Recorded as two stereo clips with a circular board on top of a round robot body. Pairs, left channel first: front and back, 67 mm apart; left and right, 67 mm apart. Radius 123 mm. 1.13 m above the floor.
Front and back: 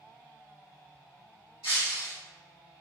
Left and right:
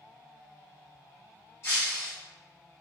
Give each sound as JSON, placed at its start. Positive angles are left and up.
{"t": 1.6, "sound": "breaking glass", "azimuth_deg": 145, "distance_m": 1.2}